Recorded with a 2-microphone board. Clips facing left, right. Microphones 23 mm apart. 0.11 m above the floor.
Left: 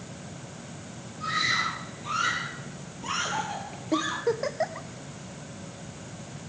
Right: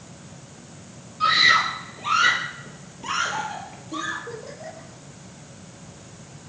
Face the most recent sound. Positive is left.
turn(degrees=70)  # may be behind; listen again after turning